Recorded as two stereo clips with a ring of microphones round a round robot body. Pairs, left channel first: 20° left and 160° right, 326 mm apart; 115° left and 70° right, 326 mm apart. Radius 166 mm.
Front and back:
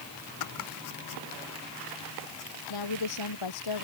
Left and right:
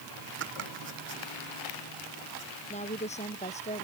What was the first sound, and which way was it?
Chopping, 10° right.